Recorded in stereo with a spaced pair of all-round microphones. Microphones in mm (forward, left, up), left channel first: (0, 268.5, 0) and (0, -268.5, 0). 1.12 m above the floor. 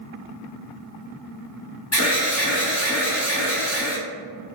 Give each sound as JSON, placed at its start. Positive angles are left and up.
{"t": 1.9, "sound": "an alarm", "side_deg": 25, "distance_m": 1.3}